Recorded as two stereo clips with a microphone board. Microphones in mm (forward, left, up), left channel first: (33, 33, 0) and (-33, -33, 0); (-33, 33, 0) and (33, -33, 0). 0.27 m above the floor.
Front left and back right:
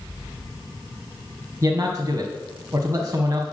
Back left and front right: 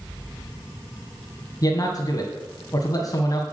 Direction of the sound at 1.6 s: 170° left.